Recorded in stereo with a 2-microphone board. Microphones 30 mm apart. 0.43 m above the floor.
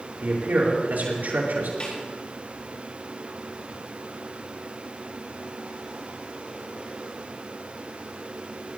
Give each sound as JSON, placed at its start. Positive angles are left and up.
{"t": 0.2, "sound": "a man speaking", "side_deg": -80, "distance_m": 5.5}
{"t": 1.8, "sound": "a snare drum", "side_deg": 35, "distance_m": 7.0}